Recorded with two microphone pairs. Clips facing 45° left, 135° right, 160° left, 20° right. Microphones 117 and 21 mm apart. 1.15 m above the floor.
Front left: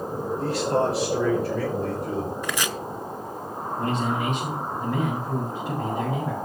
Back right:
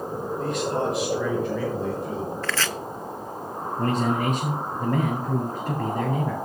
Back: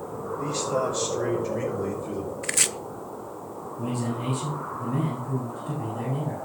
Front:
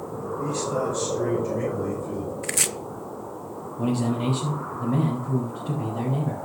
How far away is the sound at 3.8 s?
About 4.5 m.